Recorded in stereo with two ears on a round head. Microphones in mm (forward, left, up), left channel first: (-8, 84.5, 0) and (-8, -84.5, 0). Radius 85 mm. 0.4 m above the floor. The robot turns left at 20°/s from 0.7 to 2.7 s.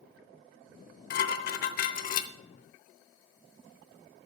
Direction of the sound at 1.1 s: 55° left (ahead or behind).